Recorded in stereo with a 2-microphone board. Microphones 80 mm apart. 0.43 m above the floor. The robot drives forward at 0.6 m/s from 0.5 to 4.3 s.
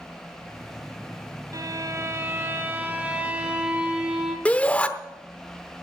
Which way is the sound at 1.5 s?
50° right (ahead or behind).